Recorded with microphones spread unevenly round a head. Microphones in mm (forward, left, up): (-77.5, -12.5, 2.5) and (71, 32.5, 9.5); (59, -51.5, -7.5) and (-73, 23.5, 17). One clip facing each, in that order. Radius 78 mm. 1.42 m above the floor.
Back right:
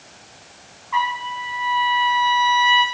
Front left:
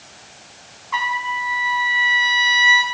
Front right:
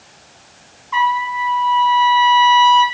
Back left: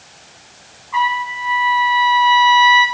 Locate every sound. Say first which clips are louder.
0.9 s a trumpet: back right 1 dB, front right 2 dB; 20° right, 3 m